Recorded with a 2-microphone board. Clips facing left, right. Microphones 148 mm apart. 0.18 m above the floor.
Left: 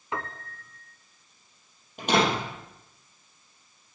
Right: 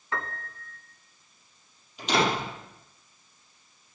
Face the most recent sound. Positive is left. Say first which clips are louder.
# left 2 dB
turn(degrees=55)  # may be behind; listen again after turning